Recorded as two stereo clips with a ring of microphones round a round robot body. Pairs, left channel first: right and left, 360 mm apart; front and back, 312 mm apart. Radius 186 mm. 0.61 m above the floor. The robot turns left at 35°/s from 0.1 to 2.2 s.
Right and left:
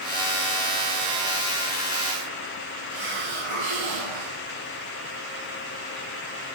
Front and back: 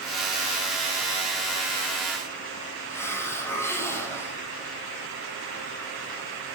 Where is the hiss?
80° left, 4.5 m.